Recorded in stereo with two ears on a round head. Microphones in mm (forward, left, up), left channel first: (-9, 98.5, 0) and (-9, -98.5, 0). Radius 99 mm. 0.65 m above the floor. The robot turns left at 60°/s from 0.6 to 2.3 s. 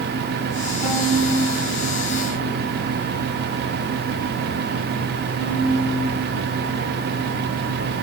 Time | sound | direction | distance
0.8 | a violin | 50° left (ahead or behind) | 6.5 m